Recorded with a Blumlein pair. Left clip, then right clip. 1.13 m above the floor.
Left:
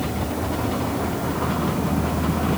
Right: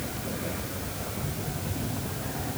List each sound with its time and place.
Only background noise.